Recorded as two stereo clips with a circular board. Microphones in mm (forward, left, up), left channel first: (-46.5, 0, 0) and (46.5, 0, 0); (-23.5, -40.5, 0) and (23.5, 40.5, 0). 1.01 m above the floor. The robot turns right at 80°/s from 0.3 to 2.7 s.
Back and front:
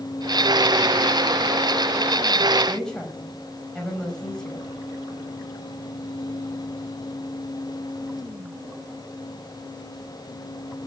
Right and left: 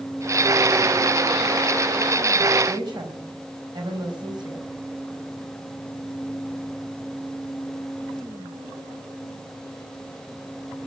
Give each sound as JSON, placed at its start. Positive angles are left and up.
{"t": 2.7, "sound": "a woman speaking", "azimuth_deg": 95, "distance_m": 4.5}